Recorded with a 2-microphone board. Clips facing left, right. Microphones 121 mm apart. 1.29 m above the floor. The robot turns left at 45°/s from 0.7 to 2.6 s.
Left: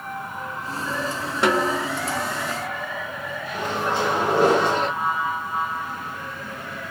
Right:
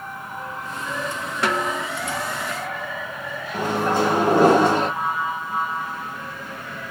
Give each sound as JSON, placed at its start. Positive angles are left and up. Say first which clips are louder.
{"t": 1.4, "sound": "a snare drum", "louder": "left 3 dB", "side_deg": 25, "distance_m": 1.1}
{"t": 3.5, "sound": "a microwave", "louder": "right 4 dB", "side_deg": -45, "distance_m": 1.0}